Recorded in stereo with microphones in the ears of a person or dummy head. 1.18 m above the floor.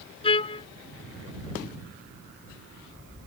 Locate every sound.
0.2 s a trumpet: 30° left (ahead or behind)